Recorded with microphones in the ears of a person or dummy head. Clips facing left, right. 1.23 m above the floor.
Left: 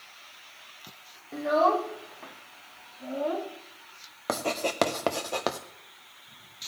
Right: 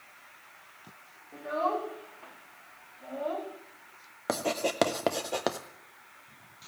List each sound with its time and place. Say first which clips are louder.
1.3 s a child speaking: left 7 dB; 75° left (ahead or behind), 1.4 m; by 3.5 s 40° left (ahead or behind), 2.0 m
4.3 s writing: even; 5° right (ahead or behind), 0.7 m